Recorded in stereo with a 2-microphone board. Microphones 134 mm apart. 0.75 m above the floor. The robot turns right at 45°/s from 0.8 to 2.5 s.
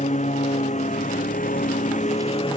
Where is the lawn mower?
60° left; by 2.6 s 140° left.